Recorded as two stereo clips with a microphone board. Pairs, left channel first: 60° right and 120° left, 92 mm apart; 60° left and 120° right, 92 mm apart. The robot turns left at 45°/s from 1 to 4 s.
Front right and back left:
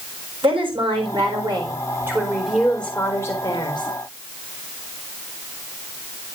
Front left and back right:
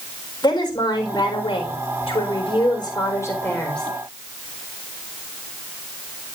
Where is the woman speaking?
100° left, 4 m; by 3.9 s 30° right, 4 m.